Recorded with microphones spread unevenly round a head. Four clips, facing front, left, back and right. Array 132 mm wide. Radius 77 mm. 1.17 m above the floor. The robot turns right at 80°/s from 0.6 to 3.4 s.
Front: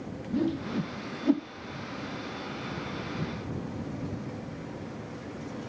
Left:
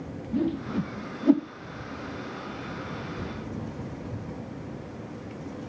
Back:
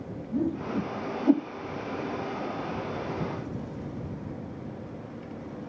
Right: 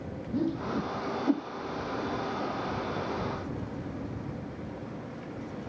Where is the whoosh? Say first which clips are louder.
Left 2 dB, back 1 dB; 25° left; by 1.5 s 95° left.